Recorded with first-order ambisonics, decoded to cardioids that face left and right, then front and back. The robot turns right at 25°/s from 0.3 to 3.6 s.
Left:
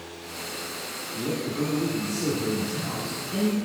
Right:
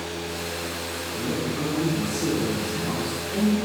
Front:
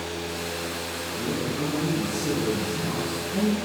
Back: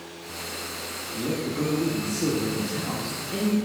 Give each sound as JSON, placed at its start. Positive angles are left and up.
{"t": 1.1, "sound": "a man speaking", "azimuth_deg": 140, "distance_m": 1.5}